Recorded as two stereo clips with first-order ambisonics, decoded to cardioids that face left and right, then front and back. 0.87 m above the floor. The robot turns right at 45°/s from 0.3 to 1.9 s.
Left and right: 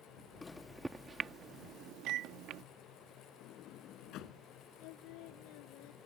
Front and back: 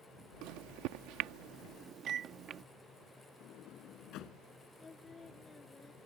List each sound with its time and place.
0.4 s a microwave: 165° left; by 2.6 s 125° right
3.4 s a sliding door: 45° left
4.8 s singing: 75° left